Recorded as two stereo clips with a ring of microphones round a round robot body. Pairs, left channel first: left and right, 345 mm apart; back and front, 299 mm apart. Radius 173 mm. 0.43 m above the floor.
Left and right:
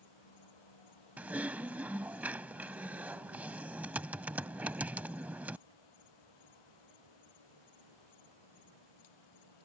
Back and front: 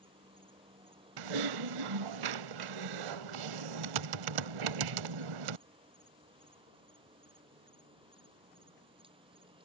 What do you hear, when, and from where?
0.0 s an insect: 75° left
1.2 s typing on a keyboard: 5° right